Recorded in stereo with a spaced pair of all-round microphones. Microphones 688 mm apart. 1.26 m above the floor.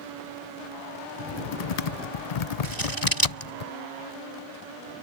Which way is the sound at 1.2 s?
65° left (ahead or behind).